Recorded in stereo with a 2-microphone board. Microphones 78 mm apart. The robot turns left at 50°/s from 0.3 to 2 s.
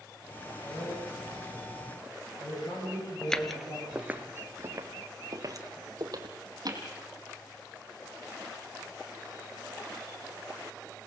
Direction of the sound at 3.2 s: 10° left (ahead or behind).